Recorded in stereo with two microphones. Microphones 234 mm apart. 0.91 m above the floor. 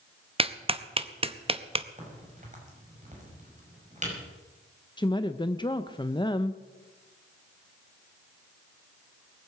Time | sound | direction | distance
0.4 | a clap | 25° right (ahead or behind) | 0.7 m
2.0 | a crack | 30° right (ahead or behind) | 5.5 m
5.0 | a woman speaking | 20° left (ahead or behind) | 0.6 m